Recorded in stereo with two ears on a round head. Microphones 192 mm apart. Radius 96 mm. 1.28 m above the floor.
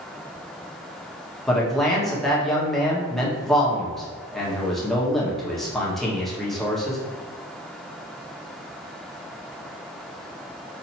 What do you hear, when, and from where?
1.5 s a man speaking: centre (ahead or behind), 1.1 m